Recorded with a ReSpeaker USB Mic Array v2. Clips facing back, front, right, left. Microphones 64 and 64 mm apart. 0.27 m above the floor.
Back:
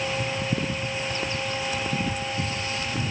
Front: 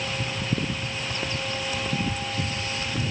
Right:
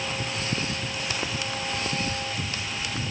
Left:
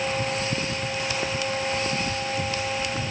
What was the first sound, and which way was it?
Only background noise.